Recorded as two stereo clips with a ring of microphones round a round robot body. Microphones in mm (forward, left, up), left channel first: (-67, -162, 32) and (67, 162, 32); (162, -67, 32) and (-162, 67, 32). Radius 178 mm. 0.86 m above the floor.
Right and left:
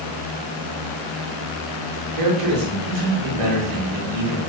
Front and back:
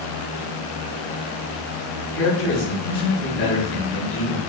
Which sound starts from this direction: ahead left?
A man speaking, at 2.1 s.